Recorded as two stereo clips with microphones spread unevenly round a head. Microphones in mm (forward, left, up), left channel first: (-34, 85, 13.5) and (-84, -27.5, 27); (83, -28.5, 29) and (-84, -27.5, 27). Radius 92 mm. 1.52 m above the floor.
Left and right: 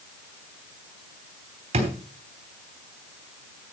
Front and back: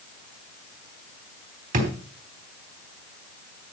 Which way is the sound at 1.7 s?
140° right.